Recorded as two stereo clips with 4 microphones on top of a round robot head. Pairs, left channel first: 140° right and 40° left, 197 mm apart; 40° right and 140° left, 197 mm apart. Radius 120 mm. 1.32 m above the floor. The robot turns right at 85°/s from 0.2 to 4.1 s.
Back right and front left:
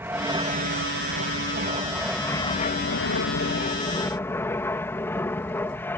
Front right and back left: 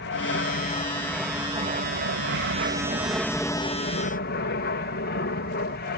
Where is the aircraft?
40° right; by 6.0 s 60° right.